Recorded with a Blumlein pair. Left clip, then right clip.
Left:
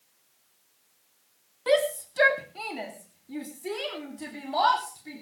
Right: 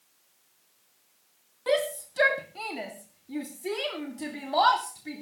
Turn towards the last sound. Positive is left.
turn(degrees=-10)